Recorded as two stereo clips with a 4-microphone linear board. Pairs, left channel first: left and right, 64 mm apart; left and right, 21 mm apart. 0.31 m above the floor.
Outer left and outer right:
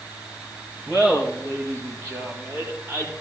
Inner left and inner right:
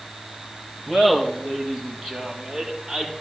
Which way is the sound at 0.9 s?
15° right (ahead or behind).